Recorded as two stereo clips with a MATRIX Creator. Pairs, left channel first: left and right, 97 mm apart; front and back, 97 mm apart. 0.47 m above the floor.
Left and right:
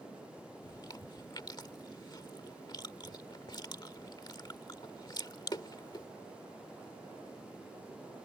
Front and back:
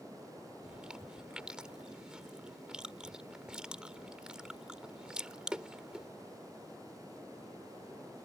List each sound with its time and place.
0.6 s chewing: 100° left